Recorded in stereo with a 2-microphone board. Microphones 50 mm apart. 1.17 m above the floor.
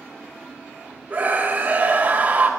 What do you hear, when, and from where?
1.1 s a scream: 30° right (ahead or behind), 4.5 m